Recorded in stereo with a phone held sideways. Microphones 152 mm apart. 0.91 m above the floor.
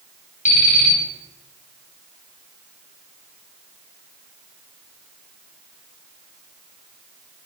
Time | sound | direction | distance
0.5 | an alarm clock | 50° left (ahead or behind) | 3.5 m